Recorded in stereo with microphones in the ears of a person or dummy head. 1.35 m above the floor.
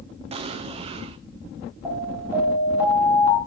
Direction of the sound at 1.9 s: 10° right (ahead or behind).